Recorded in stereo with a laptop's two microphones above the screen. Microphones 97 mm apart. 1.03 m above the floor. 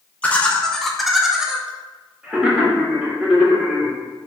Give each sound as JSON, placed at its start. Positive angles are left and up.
{"t": 0.2, "sound": "laughter", "side_deg": 15, "distance_m": 0.5}